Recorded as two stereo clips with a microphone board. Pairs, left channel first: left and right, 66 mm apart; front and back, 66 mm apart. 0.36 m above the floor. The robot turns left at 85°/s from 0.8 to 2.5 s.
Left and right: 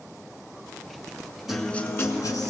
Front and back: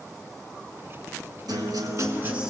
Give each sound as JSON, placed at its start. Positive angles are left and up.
{"t": 1.5, "sound": "a guitar", "azimuth_deg": -175, "distance_m": 1.7}